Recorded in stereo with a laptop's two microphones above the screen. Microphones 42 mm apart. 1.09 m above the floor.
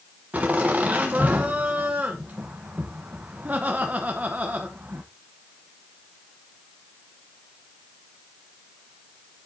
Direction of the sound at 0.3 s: 35° right (ahead or behind).